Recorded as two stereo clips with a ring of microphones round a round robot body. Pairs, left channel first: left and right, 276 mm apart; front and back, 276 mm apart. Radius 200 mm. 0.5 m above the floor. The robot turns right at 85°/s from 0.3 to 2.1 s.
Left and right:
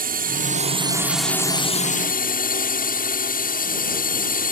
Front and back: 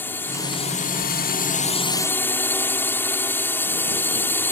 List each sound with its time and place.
0.0 s a drone: 75° right; by 4.5 s 75° left